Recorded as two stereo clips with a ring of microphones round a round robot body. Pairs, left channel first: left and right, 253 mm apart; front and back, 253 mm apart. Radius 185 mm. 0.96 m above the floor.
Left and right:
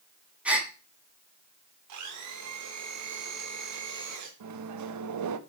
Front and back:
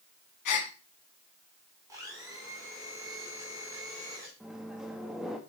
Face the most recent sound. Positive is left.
turn(degrees=-90)